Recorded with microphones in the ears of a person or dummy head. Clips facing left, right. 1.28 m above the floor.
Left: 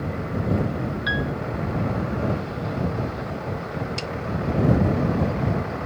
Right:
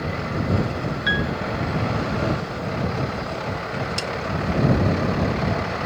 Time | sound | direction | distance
1.1 | a piano | 35° right (ahead or behind) | ?
4.0 | a snare drum | 15° right (ahead or behind) | ?